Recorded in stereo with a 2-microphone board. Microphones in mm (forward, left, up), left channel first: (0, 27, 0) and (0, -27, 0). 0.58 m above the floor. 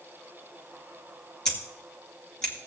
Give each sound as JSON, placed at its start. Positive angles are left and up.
{"t": 1.4, "sound": "scissors", "side_deg": 15, "distance_m": 2.5}